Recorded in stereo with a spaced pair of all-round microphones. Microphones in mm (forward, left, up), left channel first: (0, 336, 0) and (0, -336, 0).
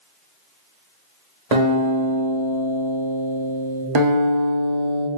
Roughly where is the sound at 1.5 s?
Right.